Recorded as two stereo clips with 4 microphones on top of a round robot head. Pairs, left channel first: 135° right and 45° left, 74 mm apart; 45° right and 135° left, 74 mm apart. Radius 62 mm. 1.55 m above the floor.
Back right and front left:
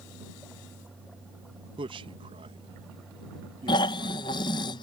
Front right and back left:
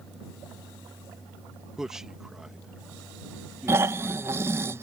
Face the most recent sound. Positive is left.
turn(degrees=-165)